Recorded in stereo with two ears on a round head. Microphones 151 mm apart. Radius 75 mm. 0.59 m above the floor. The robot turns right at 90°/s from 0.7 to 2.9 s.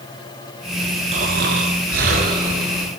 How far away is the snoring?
About 7 m.